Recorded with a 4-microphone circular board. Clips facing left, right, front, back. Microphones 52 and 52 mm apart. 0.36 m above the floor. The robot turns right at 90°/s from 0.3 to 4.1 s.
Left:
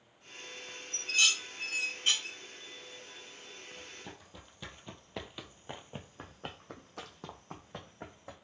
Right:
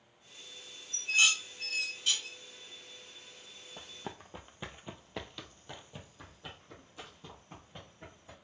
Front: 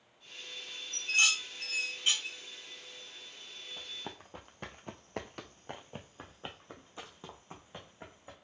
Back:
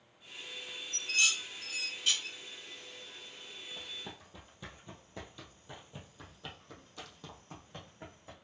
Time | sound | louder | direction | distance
0.9 | dishes clattering | right 2 dB, front 2 dB | 50° right | 1.0 m
3.8 | running footsteps | right 3 dB, front 3 dB | 80° right | 0.9 m